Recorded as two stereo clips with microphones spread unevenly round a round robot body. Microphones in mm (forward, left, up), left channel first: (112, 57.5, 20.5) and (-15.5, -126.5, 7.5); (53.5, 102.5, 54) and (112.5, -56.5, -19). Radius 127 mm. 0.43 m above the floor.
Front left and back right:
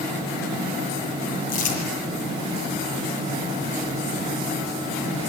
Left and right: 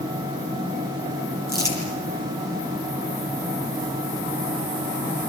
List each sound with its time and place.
1.5 s crumpling: 40° left, 9 m